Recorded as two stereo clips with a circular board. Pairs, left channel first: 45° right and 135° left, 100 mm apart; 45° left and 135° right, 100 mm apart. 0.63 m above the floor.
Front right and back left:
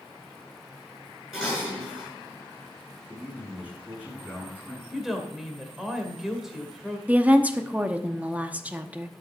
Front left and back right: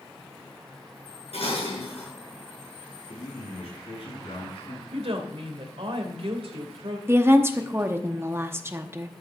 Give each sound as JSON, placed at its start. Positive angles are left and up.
{"t": 1.3, "sound": "dishes clattering", "azimuth_deg": 50, "distance_m": 6.5}
{"t": 3.1, "sound": "a man speaking", "azimuth_deg": 55, "distance_m": 5.5}
{"t": 4.9, "sound": "a woman speaking", "azimuth_deg": -140, "distance_m": 2.0}
{"t": 7.1, "sound": "a woman speaking", "azimuth_deg": -170, "distance_m": 0.9}